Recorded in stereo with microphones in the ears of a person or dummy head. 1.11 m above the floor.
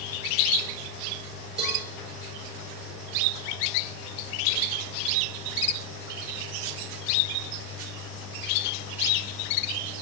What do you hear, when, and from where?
1.6 s a cowbell: 40° right (ahead or behind), 3.5 m